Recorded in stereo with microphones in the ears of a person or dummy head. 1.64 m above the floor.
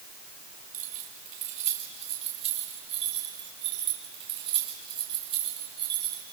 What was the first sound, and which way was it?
Keys jangling, 45° right (ahead or behind).